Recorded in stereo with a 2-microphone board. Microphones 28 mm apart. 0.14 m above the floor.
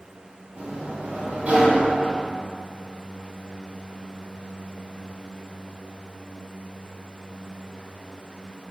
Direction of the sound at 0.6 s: 55° right (ahead or behind).